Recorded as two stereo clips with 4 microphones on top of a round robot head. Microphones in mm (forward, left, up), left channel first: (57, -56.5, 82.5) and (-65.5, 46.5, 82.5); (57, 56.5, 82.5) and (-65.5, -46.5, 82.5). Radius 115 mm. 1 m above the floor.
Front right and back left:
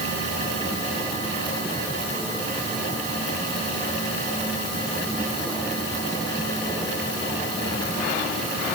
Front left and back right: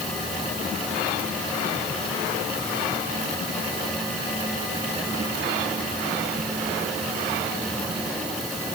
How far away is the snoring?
No snoring in this recording.